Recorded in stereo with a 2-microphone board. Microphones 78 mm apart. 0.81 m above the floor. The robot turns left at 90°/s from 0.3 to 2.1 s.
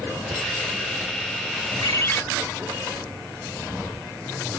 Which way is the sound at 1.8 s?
55° left (ahead or behind).